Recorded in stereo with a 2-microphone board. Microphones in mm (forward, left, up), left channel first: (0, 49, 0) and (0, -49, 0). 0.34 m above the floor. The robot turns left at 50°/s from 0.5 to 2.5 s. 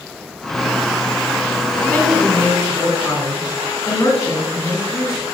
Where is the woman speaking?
Straight behind, 1.9 m; by 5.2 s 145° left, 1.9 m.